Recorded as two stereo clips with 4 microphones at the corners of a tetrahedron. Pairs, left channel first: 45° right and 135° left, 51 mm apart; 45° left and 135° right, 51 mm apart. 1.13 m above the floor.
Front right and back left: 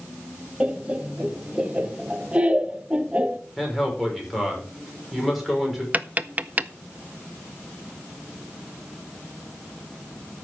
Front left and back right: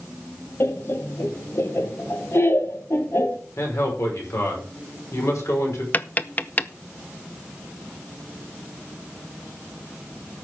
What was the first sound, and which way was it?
Laughter, 70° left.